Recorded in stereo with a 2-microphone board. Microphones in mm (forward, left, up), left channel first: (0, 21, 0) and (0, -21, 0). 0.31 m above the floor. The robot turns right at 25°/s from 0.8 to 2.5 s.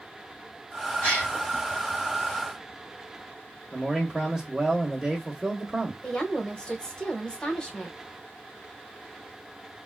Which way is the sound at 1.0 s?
35° left (ahead or behind).